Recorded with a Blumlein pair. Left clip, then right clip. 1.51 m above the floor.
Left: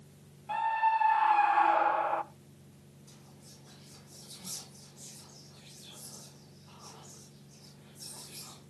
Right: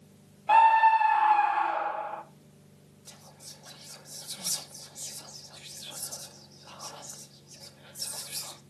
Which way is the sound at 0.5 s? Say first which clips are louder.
Right 9 dB; 35° right.